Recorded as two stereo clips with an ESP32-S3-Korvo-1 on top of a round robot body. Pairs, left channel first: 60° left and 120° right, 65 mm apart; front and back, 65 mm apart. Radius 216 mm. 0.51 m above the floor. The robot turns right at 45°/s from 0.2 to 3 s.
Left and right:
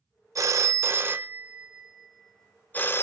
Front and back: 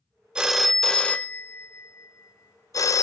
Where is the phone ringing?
105° right, 0.6 m; by 3.0 s 15° left, 0.6 m.